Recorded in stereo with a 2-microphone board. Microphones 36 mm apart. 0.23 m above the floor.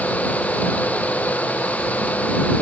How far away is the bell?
No bell in this recording.